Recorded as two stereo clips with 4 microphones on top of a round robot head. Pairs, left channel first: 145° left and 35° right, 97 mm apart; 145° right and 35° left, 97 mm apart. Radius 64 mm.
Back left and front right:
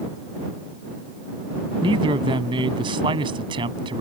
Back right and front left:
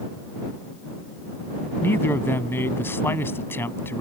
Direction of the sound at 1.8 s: 75° right.